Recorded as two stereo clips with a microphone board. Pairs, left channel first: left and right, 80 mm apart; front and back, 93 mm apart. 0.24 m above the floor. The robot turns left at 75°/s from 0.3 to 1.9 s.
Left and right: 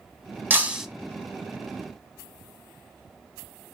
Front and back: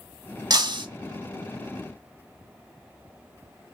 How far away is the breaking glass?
About 0.8 m.